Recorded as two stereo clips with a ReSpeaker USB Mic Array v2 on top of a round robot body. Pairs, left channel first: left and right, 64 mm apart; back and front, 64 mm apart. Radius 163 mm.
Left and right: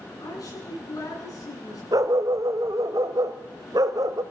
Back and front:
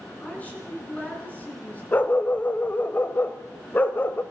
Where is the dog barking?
120° right, 1.2 m.